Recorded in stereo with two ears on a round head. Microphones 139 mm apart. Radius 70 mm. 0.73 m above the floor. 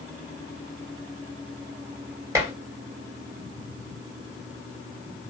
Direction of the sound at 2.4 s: 15° right (ahead or behind).